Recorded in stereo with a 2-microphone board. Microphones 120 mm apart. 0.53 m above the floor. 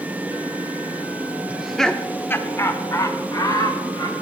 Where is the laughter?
10° right (ahead or behind), 0.6 m; by 4.1 s 35° left (ahead or behind), 2 m.